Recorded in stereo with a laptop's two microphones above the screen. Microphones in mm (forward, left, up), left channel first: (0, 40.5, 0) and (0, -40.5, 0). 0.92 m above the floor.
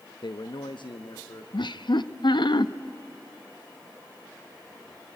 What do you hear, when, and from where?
0.2 s a man speaking: 65° left (ahead or behind), 0.5 m
1.5 s laughter: 65° left (ahead or behind), 0.8 m